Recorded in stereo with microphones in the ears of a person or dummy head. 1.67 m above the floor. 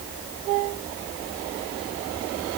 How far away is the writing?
I don't hear writing.